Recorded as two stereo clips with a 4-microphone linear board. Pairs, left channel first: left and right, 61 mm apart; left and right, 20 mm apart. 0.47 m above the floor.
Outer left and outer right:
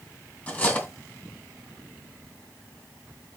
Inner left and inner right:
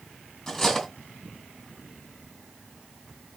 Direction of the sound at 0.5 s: 30° left (ahead or behind).